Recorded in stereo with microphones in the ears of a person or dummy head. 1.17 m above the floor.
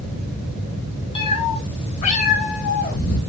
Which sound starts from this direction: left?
A cat meowing, at 1.1 s.